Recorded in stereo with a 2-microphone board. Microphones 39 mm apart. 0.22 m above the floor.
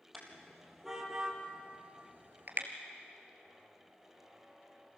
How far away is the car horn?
About 4 m.